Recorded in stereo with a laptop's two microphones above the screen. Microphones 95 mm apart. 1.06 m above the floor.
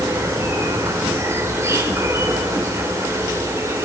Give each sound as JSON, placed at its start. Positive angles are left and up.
{"t": 0.0, "sound": "an insect", "side_deg": -30, "distance_m": 1.5}